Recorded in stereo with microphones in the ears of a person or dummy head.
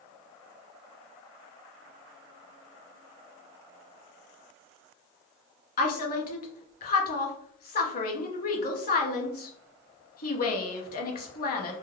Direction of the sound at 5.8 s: 50° left (ahead or behind).